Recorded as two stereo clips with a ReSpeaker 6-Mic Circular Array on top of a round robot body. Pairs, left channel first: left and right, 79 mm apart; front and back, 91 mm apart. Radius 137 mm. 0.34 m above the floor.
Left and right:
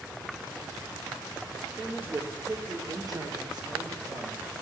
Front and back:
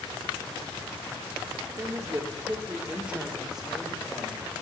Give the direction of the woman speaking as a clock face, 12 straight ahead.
5 o'clock.